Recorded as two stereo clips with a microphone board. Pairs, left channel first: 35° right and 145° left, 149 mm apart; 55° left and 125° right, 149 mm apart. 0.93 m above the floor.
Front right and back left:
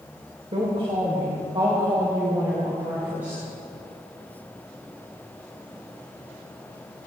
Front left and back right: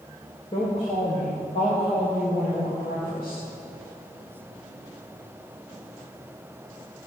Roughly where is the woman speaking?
Left.